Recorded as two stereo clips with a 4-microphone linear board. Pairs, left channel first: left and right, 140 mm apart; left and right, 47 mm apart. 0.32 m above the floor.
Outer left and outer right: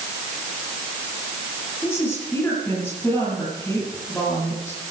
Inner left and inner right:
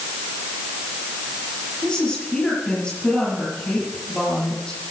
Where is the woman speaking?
15° left (ahead or behind), 6.5 m.